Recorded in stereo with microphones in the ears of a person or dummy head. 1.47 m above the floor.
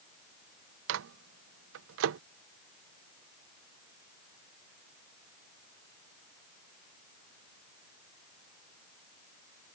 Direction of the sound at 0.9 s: 80° right.